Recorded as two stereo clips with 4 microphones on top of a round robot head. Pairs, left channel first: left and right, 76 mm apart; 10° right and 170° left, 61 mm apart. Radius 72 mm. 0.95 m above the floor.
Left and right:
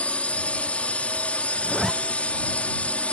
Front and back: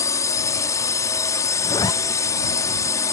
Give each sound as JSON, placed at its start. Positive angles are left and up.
{"t": 0.0, "sound": "a drone", "azimuth_deg": 15}
{"t": 1.6, "sound": "a zipper", "azimuth_deg": 5}